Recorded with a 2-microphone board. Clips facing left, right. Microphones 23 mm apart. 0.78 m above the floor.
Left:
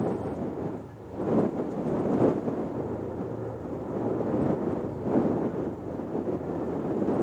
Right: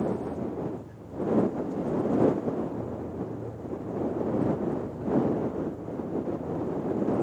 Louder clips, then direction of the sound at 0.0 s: Even; 60° left (ahead or behind).